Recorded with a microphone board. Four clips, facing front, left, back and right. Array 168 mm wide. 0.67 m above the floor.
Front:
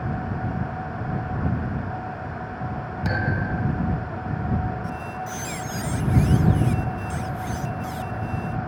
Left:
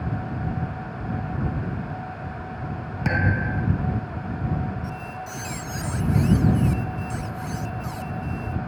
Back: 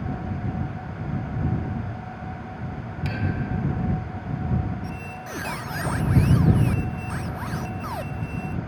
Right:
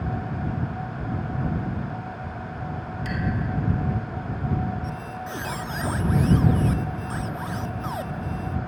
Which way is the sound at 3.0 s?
55° left.